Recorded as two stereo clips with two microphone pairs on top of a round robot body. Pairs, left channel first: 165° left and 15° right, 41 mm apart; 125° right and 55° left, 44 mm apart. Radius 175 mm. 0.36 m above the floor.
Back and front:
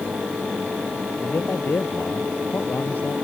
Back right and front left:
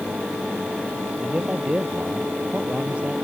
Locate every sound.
1.2 s a man speaking: 120° left